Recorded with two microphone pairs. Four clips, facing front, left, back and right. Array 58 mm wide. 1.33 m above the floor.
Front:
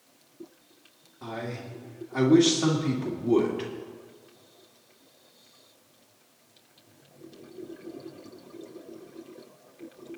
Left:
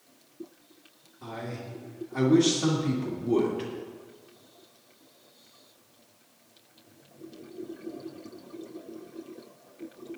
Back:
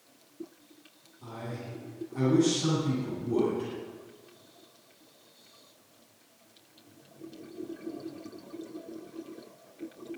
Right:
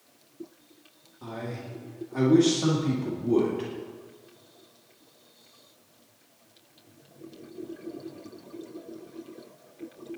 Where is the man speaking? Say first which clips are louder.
Right 1 dB, front 4 dB; 10° right, 2.5 m.